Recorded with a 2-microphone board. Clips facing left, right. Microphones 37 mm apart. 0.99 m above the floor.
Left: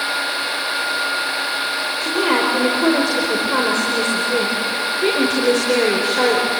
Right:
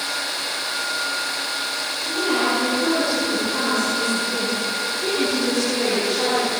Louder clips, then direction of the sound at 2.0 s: Left 4 dB; 80° left.